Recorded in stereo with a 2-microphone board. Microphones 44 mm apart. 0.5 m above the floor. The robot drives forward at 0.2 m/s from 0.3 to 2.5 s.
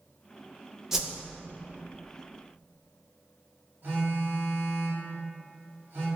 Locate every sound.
0.9 s a whoosh: 10° right (ahead or behind), 0.6 m
3.8 s a phone buzzing: 45° right (ahead or behind), 1.2 m